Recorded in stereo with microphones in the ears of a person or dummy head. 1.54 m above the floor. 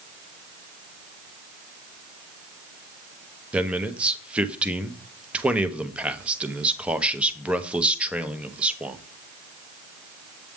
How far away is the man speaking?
About 0.9 m.